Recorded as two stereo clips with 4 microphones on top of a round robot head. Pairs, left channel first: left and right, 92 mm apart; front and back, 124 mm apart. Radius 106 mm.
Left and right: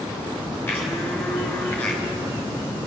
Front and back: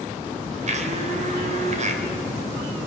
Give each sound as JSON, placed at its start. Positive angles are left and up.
{"t": 0.7, "sound": "a blender", "azimuth_deg": 160, "distance_m": 3.0}